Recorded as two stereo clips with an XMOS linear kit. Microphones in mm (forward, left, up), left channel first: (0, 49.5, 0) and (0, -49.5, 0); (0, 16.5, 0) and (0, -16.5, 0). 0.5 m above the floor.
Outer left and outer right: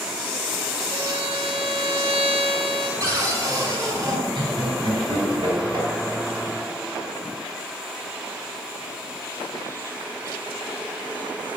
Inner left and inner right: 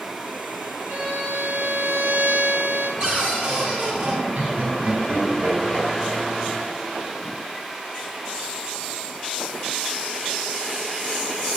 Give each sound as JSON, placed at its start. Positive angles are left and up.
{"t": 0.9, "sound": "a violin", "side_deg": -80, "distance_m": 2.5}
{"t": 3.0, "sound": "a cupboard door", "side_deg": -35, "distance_m": 3.5}
{"t": 4.3, "sound": "laughter", "side_deg": -55, "distance_m": 4.0}